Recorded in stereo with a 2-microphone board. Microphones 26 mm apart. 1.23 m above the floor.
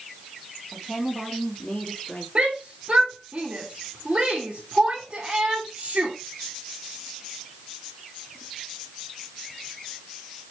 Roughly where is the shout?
Right.